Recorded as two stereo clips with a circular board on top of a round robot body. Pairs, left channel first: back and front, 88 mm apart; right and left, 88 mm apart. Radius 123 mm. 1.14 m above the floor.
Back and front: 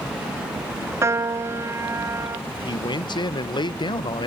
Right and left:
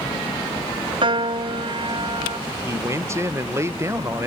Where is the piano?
60° left, 0.9 m.